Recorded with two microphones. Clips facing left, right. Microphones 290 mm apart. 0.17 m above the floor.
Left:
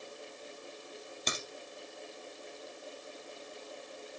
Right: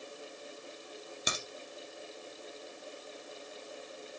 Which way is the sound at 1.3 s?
10° right (ahead or behind).